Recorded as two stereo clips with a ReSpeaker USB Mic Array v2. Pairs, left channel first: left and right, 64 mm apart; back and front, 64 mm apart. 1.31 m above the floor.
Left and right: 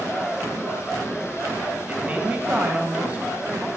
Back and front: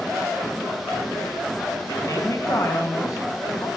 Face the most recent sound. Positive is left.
turn(degrees=-155)